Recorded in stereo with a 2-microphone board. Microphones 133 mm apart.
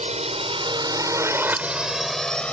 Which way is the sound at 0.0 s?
60° right (ahead or behind).